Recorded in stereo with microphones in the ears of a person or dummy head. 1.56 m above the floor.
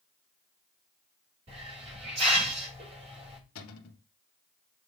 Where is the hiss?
35° right (ahead or behind), 5.5 m.